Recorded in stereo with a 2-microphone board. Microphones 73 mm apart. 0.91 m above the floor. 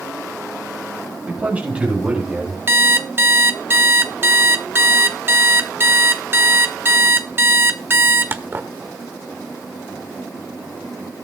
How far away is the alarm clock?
About 1.1 m.